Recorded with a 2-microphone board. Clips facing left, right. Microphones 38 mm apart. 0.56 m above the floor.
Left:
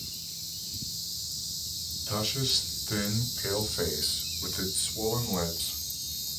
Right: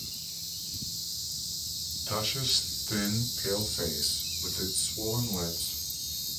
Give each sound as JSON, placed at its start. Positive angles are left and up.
{"t": 2.1, "sound": "a man speaking", "side_deg": -10, "distance_m": 1.4}